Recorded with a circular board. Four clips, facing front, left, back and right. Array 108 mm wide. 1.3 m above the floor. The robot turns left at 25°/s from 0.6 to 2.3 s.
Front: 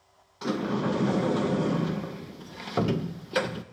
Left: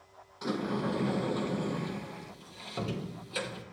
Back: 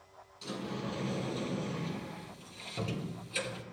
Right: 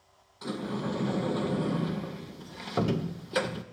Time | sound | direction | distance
0.4 | a sliding door | 15° left | 1.1 m